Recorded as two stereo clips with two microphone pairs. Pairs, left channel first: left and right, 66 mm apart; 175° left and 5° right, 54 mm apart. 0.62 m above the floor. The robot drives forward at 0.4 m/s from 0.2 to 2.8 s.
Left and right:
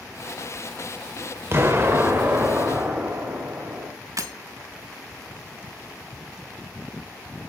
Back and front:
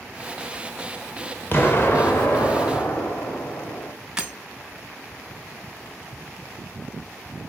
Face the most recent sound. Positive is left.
turn(degrees=-85)